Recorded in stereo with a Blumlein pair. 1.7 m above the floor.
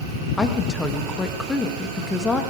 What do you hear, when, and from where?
0.4 s a woman speaking: 10° left, 1.9 m